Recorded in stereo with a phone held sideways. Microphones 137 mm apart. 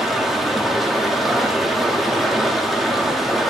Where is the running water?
Centre (ahead or behind), 1.3 m.